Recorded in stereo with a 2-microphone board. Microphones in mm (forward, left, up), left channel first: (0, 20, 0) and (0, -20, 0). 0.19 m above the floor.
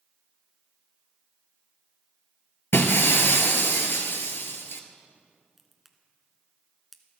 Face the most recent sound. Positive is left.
turn(degrees=-5)  # may be behind; listen again after turning